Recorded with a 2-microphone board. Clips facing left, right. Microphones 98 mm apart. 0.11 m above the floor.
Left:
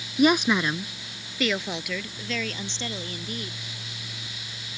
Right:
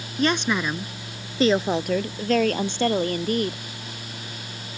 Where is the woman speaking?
15° left (ahead or behind); by 3.6 s 65° right (ahead or behind).